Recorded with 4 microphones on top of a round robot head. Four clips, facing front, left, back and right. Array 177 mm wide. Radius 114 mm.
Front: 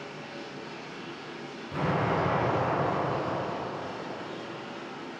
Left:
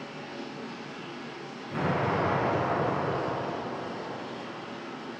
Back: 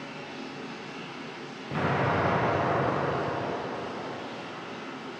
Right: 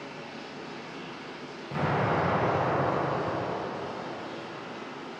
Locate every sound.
0.0 s running water: 115° left, 2.5 m
1.7 s an explosion: 170° right, 1.6 m